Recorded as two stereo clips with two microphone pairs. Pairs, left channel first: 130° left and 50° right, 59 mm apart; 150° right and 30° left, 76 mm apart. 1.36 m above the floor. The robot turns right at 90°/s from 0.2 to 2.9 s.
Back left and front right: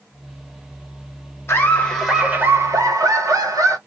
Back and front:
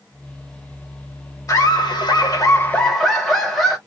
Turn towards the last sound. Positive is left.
turn(degrees=-65)